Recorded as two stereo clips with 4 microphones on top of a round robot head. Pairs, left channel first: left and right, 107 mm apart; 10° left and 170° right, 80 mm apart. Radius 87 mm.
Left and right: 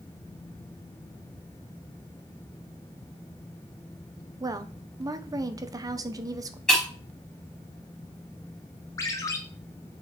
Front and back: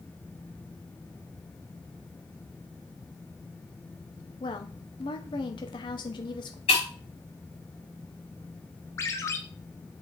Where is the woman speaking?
35° right, 1.1 m.